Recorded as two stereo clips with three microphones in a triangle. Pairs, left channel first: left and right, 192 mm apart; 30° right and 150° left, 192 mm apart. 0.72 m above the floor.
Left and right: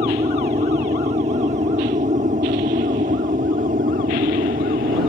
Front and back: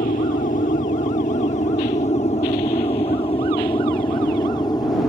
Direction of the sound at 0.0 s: 45° right.